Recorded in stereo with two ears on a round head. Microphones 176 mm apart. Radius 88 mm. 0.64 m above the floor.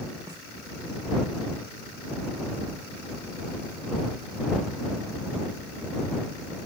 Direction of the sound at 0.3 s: 20° right (ahead or behind).